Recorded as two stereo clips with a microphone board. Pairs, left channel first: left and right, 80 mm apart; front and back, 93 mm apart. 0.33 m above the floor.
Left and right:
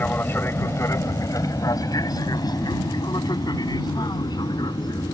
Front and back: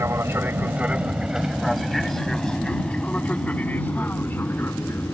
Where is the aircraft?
140° left; by 5.1 s 65° left.